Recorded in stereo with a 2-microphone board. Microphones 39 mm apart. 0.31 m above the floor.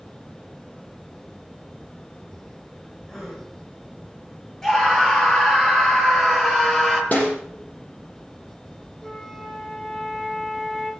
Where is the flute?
15° left (ahead or behind), 5.5 m.